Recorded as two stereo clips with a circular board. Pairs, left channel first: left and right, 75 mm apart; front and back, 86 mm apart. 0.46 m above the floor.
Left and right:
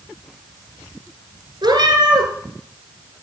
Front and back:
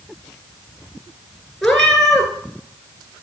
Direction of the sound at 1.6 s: 85° right.